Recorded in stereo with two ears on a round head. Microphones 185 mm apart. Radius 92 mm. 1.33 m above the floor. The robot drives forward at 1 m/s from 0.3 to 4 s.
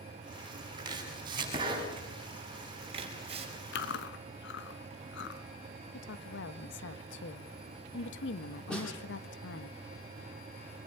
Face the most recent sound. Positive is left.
turn(degrees=5)  # may be behind; listen again after turning